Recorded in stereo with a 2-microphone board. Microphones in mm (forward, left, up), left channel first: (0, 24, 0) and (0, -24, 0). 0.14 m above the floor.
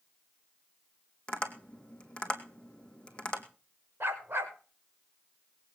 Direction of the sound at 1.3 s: 20° left (ahead or behind).